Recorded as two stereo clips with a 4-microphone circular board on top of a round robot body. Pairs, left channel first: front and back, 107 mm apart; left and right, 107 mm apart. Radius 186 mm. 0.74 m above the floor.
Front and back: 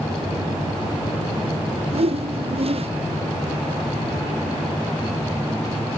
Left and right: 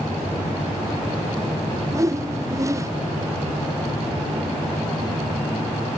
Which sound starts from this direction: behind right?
A whoosh, at 1.9 s.